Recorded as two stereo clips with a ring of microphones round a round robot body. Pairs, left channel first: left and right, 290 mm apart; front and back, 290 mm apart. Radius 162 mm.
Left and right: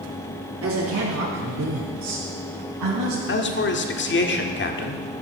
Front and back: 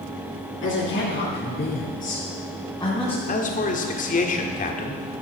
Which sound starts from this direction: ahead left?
A man speaking, at 3.3 s.